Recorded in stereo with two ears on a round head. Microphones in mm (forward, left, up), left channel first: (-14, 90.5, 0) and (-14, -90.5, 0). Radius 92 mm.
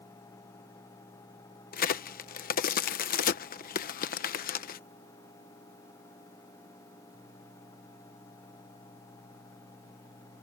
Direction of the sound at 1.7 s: 45° left (ahead or behind).